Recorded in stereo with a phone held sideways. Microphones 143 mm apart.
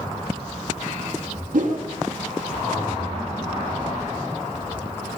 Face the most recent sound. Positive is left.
turn(degrees=-70)  # may be behind; listen again after turning